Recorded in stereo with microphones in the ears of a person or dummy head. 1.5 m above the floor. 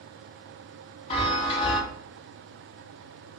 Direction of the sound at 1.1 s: 30° left (ahead or behind).